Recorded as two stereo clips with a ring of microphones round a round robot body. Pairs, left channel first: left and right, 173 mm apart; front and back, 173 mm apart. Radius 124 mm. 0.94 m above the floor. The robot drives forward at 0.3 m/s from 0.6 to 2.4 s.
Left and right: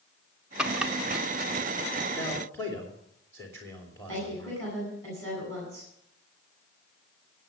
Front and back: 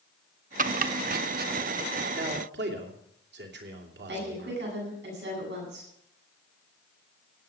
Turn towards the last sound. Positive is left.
turn(degrees=170)